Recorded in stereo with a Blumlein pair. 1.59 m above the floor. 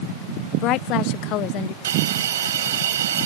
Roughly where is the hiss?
Ahead right.